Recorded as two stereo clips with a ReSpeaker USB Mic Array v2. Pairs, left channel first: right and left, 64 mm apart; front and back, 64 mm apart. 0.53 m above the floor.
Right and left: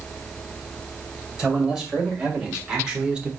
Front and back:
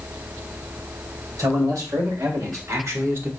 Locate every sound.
1.4 s a man speaking: 170° left, 2.5 m; by 3.3 s 155° left, 1.0 m